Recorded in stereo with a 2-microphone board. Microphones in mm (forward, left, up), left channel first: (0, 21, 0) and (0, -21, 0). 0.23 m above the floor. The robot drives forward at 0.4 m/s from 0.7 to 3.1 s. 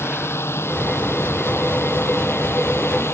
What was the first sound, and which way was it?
A drone, 80° left.